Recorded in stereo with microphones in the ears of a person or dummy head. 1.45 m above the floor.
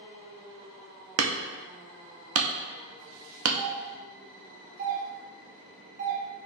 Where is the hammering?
90° right, 0.7 m.